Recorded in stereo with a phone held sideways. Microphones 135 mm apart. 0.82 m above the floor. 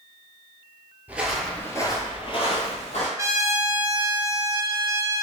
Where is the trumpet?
25° right (ahead or behind), 0.6 m.